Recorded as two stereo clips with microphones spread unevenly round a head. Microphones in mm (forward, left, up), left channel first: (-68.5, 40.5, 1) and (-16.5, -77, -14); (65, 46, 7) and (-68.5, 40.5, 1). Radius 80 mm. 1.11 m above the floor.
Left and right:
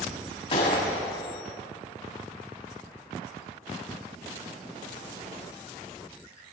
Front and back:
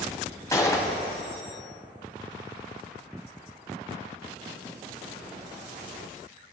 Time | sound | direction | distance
0.5 | a gunshot | 65° left | 2 m